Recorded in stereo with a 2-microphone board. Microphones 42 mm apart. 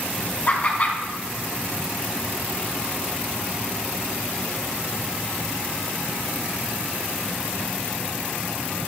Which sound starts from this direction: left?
Laughter, at 0.5 s.